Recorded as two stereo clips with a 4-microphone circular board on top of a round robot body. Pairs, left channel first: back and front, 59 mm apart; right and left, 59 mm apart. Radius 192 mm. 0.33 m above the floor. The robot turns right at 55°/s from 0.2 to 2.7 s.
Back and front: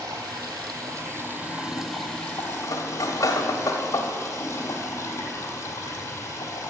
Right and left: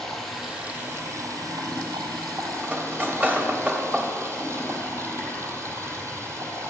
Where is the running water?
5° right, 1.9 m; by 6.7 s 135° left, 1.9 m.